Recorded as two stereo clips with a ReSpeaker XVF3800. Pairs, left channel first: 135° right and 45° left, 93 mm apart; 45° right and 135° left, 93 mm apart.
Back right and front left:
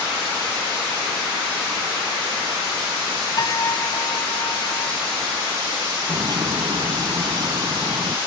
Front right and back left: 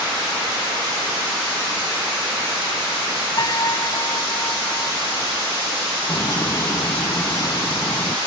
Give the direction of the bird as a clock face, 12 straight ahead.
12 o'clock.